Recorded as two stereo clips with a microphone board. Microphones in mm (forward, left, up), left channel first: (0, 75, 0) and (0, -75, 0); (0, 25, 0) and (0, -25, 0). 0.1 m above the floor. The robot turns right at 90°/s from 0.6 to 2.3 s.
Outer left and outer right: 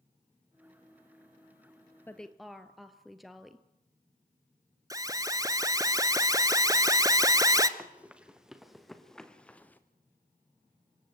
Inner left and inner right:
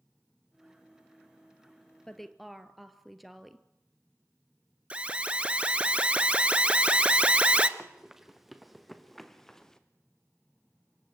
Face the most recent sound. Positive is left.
turn(degrees=10)  # may be behind; listen again after turning